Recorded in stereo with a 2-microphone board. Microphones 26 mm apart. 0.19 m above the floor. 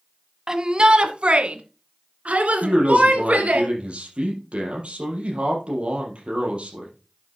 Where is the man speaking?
45° right (ahead or behind), 4.5 m.